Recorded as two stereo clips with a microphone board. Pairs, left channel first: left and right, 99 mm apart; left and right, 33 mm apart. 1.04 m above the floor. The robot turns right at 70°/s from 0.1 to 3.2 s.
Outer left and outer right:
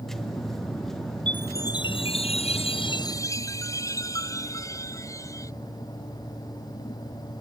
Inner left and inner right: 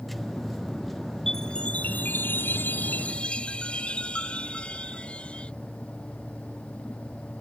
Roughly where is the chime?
Ahead.